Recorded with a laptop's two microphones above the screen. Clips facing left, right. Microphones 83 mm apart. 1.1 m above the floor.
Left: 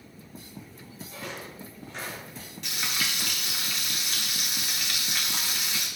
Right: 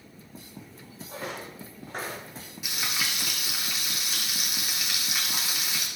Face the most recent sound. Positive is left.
turn(degrees=-5)  # may be behind; listen again after turning